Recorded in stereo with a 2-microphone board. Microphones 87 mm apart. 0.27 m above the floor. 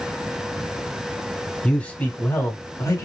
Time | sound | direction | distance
1.6 | a man speaking | 10° left (ahead or behind) | 1.4 m